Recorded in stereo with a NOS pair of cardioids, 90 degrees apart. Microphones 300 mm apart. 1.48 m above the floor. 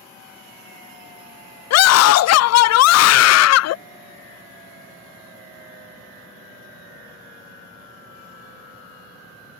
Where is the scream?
60° left.